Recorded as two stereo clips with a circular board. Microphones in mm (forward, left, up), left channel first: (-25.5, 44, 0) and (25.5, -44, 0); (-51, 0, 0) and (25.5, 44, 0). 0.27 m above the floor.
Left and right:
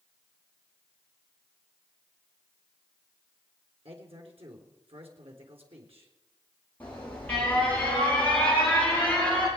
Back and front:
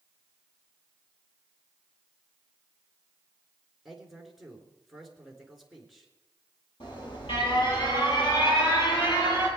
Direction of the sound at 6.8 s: 165° right.